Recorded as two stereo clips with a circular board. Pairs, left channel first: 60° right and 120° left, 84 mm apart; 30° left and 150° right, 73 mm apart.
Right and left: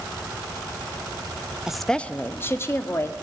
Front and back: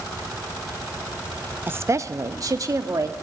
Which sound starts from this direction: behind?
A woman speaking, at 1.7 s.